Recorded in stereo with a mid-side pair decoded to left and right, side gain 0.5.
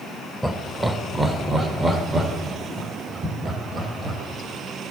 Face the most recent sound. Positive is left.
turn(degrees=-35)